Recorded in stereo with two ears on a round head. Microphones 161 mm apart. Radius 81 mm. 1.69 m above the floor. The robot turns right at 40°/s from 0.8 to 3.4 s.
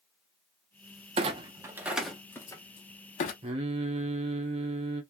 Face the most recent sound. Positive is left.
turn(degrees=-35)  # may be behind; listen again after turning